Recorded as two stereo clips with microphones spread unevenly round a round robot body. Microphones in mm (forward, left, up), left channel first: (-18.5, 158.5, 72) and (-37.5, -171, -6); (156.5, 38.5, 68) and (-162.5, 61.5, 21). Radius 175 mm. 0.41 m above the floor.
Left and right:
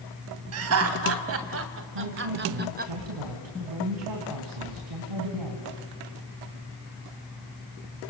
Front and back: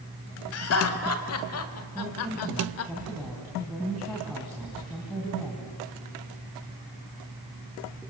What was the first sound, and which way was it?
Laughter, 55° right.